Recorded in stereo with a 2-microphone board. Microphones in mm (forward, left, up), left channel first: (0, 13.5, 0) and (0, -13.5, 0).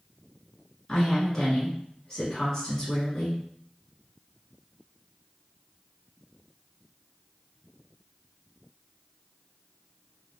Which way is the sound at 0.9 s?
15° left (ahead or behind).